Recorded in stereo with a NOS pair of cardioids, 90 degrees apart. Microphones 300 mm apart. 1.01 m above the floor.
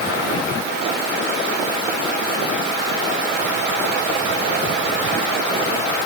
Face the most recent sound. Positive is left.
No sound to turn to.